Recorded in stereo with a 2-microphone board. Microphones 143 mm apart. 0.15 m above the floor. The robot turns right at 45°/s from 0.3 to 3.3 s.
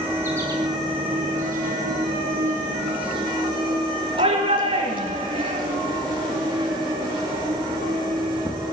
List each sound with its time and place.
0.0 s an insect: 160° right, 5.5 m; by 8.7 s 25° right, 5.5 m
4.2 s a shout: 40° right (ahead or behind), 3 m